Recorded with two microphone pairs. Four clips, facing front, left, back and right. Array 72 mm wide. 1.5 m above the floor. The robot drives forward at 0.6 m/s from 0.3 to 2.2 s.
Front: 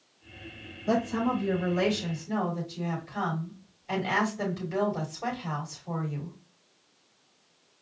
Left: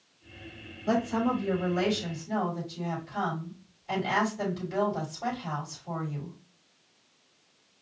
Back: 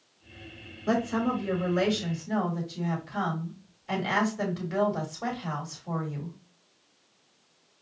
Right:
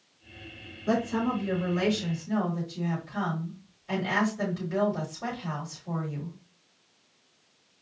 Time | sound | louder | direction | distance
0.9 | a woman speaking | even, even | straight behind | 3 m